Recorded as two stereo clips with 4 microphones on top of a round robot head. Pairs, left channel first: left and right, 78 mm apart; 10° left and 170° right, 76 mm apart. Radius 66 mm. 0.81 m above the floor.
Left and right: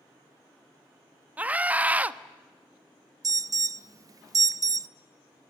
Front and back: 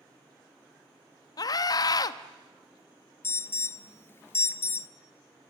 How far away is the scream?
About 1.1 m.